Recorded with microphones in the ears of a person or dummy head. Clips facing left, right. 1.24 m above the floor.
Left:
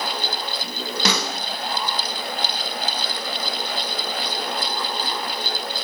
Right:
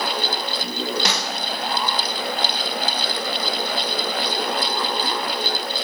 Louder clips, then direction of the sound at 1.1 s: Left 2 dB; 75° left (ahead or behind).